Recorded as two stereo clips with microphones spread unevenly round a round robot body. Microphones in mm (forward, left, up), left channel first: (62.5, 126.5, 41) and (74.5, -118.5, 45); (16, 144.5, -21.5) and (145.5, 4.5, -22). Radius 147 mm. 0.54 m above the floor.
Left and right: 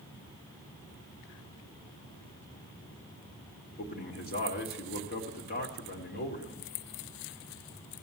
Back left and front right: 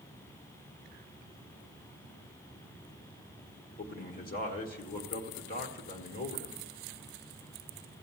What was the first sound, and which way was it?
A man speaking, 125° left.